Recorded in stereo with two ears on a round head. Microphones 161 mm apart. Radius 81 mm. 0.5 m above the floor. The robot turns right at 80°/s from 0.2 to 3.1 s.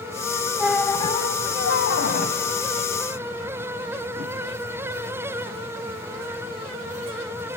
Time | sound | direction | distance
0.6 | a squeak | 10° right | 1.0 m